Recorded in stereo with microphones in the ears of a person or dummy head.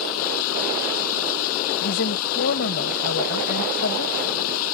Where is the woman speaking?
70° left (ahead or behind).